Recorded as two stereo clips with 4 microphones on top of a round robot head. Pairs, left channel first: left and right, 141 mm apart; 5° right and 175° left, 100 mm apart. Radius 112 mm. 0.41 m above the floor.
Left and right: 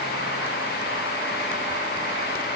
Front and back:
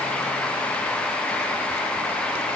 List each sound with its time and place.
Only background noise.